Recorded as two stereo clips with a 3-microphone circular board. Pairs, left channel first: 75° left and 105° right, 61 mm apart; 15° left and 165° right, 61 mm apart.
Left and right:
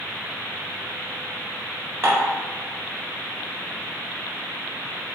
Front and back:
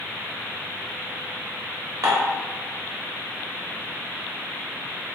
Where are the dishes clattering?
155° right, 1.4 m.